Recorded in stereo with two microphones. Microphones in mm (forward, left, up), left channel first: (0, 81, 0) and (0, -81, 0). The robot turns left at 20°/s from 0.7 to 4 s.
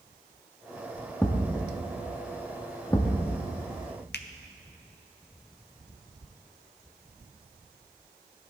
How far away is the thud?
About 1.1 m.